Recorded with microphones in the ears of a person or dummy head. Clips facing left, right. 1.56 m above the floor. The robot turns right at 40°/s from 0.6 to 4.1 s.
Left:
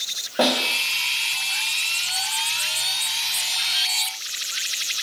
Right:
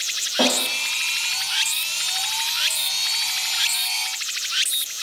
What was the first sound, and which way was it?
A snare drum, 25° left (ahead or behind).